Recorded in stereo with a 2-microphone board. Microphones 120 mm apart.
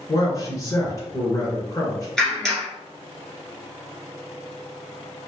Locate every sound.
0.1 s a man speaking: 30° left (ahead or behind), 1.9 m
2.2 s a clap: 5° left (ahead or behind), 1.7 m